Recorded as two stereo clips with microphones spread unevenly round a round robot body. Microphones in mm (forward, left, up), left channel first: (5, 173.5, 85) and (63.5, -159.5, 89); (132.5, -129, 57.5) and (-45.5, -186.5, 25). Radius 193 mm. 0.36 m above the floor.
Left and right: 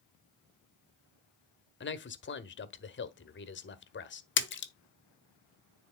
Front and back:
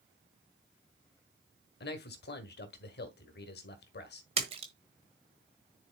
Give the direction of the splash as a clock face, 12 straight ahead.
7 o'clock.